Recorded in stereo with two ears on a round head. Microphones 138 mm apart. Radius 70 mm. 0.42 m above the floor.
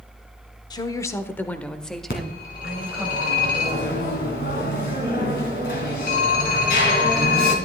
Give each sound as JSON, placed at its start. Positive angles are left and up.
{"t": 0.7, "sound": "a woman speaking", "side_deg": 25, "distance_m": 0.8}
{"t": 2.1, "sound": "a phone ringing", "side_deg": 60, "distance_m": 2.5}